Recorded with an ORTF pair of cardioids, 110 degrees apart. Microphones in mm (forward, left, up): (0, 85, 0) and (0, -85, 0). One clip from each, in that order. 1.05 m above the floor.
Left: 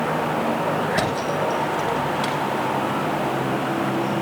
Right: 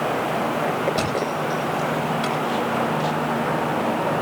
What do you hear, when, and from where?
0.9 s a thud: 20° left, 7.5 m